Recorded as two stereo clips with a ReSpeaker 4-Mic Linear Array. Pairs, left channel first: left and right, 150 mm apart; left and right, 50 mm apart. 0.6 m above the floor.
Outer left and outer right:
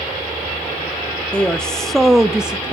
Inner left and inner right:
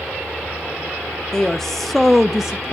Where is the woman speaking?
5° left (ahead or behind), 0.8 m; by 2.8 s 5° right (ahead or behind), 0.7 m.